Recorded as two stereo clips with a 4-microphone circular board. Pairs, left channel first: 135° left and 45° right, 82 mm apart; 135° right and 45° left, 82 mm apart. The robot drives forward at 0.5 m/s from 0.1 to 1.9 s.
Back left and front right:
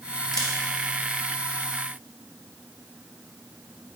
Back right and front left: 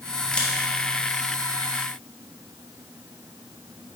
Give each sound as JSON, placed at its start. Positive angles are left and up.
{"t": 0.3, "sound": "a camera shutter", "azimuth_deg": 150, "distance_m": 1.4}